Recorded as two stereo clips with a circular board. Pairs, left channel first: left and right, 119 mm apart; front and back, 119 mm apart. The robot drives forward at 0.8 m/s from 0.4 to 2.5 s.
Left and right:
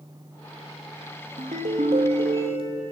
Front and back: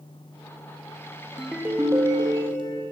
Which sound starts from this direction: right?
A ringtone, at 1.4 s.